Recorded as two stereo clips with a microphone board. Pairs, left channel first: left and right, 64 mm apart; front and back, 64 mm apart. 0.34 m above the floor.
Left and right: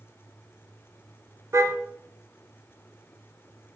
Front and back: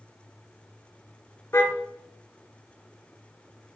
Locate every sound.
1.5 s a car horn: 50° right, 2.5 m